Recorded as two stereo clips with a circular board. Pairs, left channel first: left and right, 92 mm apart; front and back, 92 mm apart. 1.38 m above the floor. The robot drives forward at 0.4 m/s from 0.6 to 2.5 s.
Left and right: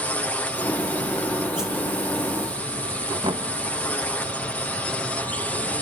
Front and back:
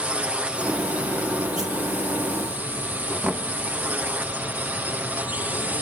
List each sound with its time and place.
0.0 s a drone: 130° left; by 5.8 s 135° left
1.6 s a whoosh: 170° right
3.2 s knocking: 100° right